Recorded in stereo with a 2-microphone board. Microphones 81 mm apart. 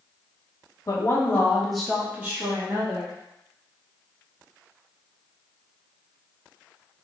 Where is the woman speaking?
40° left (ahead or behind), 1.0 m; by 3.1 s 30° right (ahead or behind), 1.8 m.